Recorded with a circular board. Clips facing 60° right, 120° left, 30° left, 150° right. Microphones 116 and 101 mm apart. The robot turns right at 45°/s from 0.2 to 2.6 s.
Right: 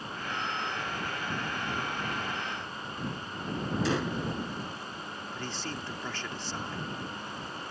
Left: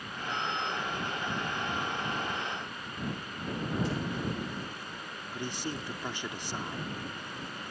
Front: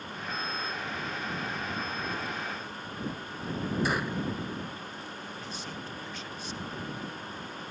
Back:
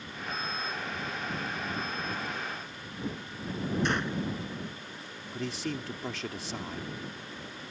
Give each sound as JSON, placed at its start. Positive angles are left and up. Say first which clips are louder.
{"t": 3.9, "sound": "a gunshot", "louder": "right 4 dB, even", "azimuth_deg": -55}
{"t": 5.3, "sound": "a man speaking", "louder": "left 3 dB, back 5 dB", "azimuth_deg": -165}